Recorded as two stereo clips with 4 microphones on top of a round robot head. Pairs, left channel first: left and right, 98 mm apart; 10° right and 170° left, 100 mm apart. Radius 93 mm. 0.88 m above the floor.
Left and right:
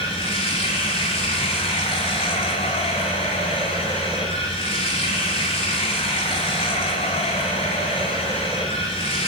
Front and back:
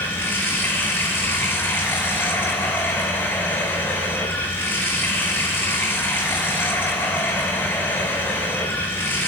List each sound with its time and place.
0.0 s running water: 60° left, 7.5 m